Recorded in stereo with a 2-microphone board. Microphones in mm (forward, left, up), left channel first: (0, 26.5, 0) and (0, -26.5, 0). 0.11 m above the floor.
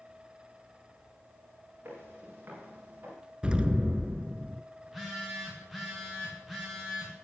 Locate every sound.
1.9 s footsteps: 40° right (ahead or behind), 7 m; by 3.1 s 35° right (ahead or behind), 7.5 m
3.4 s an explosion: 20° right (ahead or behind), 0.5 m
4.8 s a phone buzzing: 5° right (ahead or behind), 3.5 m